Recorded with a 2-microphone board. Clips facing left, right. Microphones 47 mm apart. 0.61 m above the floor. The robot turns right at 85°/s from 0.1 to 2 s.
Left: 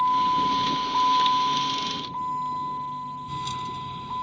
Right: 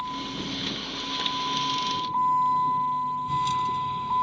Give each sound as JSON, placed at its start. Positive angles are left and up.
{"t": 0.0, "sound": "a vehicle", "azimuth_deg": 40}